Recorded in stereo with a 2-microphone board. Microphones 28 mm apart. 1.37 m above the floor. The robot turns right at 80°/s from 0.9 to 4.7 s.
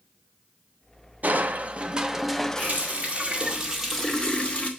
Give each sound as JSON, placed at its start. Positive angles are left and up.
{"t": 1.2, "sound": "crushing", "azimuth_deg": -90, "distance_m": 0.5}
{"t": 2.6, "sound": "a running tap", "azimuth_deg": -105, "distance_m": 2.0}